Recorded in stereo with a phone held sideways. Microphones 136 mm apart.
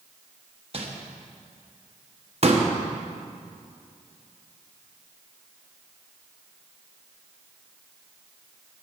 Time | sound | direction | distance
0.7 | crumpling | 45° right (ahead or behind) | 1.2 m
2.4 | a pop | 50° right (ahead or behind) | 1.0 m